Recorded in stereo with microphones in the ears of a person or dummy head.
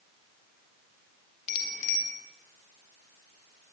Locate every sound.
1.5 s a bicycle bell: 45° left (ahead or behind), 4 m